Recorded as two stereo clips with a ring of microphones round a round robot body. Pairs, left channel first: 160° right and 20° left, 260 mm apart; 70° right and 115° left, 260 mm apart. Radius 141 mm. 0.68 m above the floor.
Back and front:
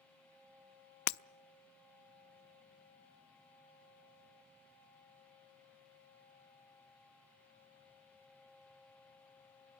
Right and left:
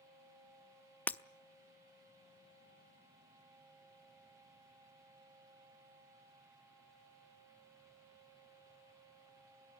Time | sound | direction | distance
1.1 | breaking glass | 150° right | 0.5 m